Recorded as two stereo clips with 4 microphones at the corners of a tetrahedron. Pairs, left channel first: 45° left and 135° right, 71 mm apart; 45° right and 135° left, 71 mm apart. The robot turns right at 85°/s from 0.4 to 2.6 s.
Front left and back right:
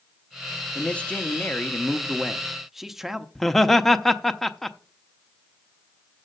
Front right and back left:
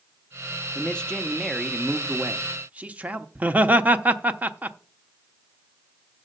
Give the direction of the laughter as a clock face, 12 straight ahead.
8 o'clock.